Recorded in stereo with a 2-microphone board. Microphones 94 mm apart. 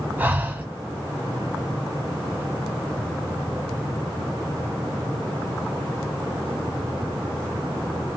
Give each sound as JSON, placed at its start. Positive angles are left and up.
{"t": 0.2, "sound": "breathing", "side_deg": -20, "distance_m": 1.0}